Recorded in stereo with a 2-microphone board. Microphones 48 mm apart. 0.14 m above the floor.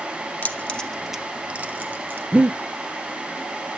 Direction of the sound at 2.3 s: 30° right (ahead or behind).